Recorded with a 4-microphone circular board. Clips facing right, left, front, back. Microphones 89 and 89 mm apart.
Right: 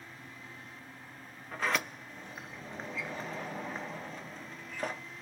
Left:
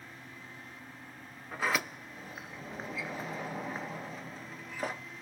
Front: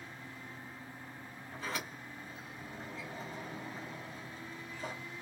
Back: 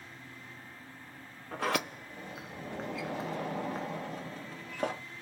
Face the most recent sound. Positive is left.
turn(degrees=175)